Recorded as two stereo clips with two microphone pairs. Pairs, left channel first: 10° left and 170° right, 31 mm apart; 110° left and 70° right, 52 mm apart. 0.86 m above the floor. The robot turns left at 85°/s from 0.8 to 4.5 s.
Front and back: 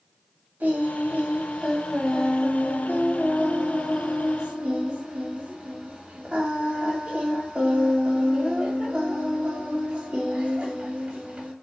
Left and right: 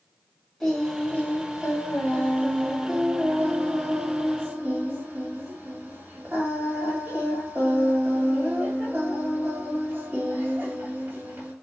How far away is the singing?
About 1.4 m.